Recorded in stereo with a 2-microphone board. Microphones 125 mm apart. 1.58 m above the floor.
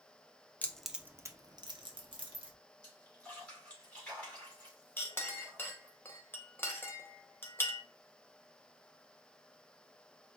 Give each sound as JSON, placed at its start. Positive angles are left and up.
{"t": 0.6, "sound": "keys jangling", "side_deg": 15, "distance_m": 0.6}
{"t": 2.8, "sound": "a splash", "side_deg": 10, "distance_m": 3.0}
{"t": 5.0, "sound": "a clink", "side_deg": 20, "distance_m": 0.8}